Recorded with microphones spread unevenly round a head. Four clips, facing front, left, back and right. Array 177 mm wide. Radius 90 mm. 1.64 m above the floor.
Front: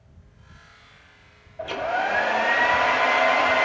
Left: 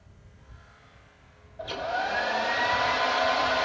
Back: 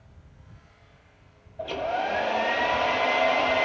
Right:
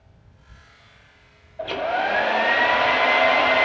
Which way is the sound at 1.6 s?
90° right.